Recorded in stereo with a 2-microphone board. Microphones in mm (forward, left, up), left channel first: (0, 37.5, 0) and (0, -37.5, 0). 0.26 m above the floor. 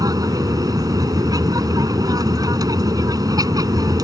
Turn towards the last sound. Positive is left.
turn(degrees=-60)  # may be behind; listen again after turning